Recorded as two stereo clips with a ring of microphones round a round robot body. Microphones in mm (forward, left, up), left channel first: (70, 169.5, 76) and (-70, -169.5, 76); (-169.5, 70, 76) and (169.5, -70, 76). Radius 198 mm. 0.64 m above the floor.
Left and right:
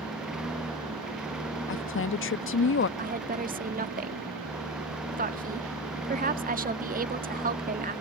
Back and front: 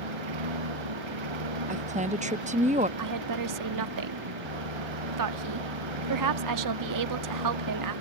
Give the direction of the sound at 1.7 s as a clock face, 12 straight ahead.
11 o'clock.